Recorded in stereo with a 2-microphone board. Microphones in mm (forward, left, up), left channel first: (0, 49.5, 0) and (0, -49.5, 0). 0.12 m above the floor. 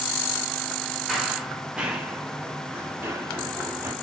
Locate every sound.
1.1 s running footsteps: centre (ahead or behind), 2.5 m; by 3.9 s 30° right (ahead or behind), 5 m